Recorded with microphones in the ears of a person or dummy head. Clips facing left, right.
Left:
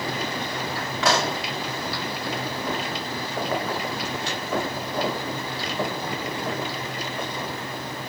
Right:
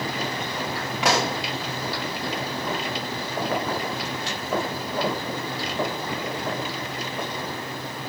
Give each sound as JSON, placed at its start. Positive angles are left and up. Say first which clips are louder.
{"t": 1.0, "sound": "a pop", "louder": "even", "side_deg": -10, "distance_m": 1.3}